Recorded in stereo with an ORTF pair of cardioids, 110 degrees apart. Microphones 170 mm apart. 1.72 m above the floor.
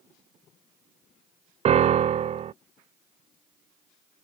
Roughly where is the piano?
Ahead right.